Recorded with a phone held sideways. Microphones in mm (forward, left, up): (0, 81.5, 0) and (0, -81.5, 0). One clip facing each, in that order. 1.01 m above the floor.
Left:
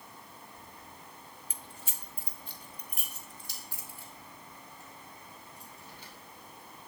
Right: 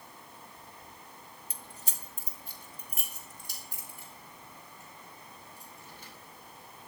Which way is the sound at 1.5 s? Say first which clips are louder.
Even; 35° right (ahead or behind).